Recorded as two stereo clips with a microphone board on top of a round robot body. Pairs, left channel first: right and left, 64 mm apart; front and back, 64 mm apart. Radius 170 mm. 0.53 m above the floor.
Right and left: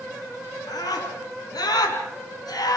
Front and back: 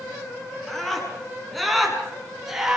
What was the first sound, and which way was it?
A scream, 85° right.